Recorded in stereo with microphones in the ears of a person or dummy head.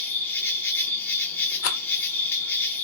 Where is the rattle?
60° left (ahead or behind), 0.9 m.